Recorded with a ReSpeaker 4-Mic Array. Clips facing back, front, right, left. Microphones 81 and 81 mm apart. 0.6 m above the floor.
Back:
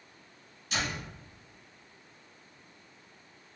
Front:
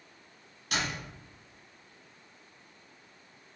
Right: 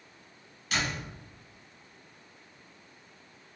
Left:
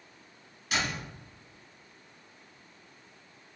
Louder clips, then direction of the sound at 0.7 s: Front 1 dB, even; 15° left.